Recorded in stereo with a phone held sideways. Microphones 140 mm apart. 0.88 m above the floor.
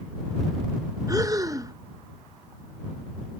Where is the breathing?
25° right (ahead or behind).